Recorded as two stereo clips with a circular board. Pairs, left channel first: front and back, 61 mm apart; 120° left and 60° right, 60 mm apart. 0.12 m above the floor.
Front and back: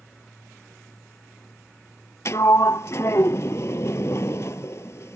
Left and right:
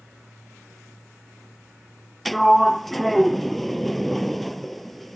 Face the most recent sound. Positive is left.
turn(degrees=30)